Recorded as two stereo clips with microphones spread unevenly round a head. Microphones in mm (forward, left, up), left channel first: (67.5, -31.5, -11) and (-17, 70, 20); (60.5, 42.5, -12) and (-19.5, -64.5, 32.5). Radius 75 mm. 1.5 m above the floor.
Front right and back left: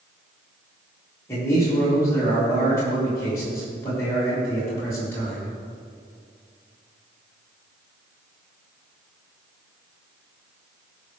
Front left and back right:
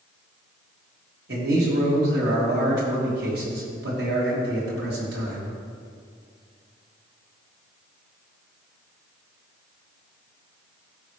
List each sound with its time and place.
1.3 s a man speaking: 125° right, 3 m